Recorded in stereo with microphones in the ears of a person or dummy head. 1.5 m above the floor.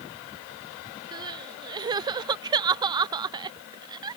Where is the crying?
25° right (ahead or behind).